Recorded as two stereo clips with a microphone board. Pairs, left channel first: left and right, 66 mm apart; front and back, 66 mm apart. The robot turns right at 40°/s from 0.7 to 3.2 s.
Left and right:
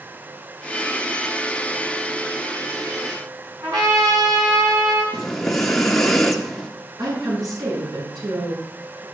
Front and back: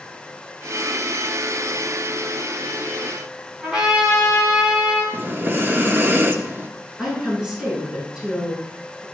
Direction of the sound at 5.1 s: 170° left.